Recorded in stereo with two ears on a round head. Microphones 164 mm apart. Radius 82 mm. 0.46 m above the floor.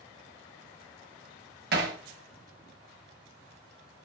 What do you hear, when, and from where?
1.7 s hammering: 60° right (ahead or behind), 2.5 m